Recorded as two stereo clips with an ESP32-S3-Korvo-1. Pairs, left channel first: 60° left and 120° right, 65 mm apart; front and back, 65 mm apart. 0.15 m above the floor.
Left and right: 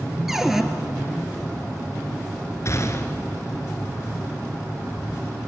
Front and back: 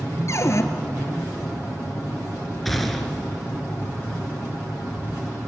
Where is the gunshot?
90° left, 2 m.